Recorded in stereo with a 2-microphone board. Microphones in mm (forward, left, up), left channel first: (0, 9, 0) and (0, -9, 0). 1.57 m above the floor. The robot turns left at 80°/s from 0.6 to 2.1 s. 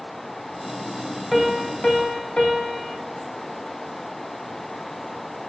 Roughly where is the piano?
Behind.